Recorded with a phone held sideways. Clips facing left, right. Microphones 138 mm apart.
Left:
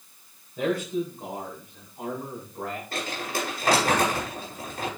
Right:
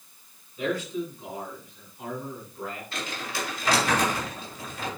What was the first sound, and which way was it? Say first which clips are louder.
A man speaking: left 3 dB; 90° left.